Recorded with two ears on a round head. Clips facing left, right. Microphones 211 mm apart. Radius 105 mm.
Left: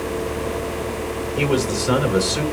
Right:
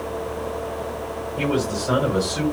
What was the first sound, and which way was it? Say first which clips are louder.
A man speaking: left 2 dB; 70° left (ahead or behind).